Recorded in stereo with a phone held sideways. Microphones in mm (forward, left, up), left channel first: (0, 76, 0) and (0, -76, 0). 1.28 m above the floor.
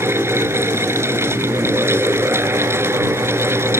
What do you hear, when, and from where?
0.0 s a fan: 15° right (ahead or behind)